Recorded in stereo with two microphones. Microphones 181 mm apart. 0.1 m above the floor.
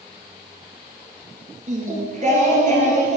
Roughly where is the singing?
Right.